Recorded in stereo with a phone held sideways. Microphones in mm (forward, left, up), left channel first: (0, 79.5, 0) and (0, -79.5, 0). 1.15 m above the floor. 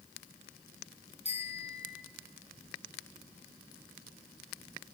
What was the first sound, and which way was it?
A bicycle bell, 40° left (ahead or behind).